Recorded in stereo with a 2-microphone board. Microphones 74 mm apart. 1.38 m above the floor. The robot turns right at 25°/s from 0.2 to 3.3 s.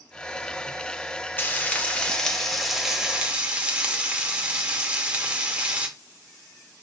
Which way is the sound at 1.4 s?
150° left.